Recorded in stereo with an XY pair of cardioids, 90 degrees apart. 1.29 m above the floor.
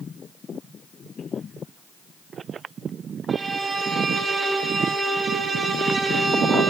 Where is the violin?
45° right, 1.2 m.